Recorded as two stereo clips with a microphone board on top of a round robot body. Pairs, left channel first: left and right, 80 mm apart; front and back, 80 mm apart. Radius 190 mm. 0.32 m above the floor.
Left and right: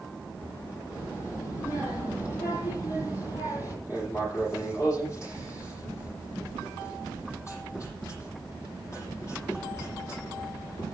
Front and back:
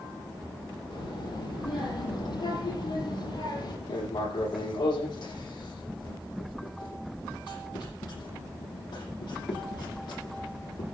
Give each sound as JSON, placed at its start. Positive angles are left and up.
{"t": 0.9, "sound": "a child speaking", "azimuth_deg": 25, "distance_m": 9.5}
{"t": 3.9, "sound": "writing", "azimuth_deg": 30, "distance_m": 9.0}